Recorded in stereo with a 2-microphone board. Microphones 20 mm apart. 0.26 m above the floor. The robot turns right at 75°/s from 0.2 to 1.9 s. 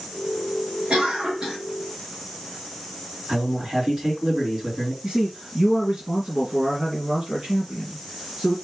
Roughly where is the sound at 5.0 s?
Right.